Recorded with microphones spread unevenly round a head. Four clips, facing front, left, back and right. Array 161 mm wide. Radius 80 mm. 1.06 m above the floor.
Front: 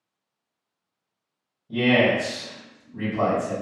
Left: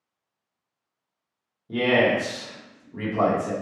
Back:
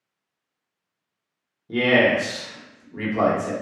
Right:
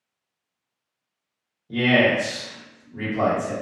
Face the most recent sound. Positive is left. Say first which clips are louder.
# right 1 dB, back 1 dB
turn(degrees=160)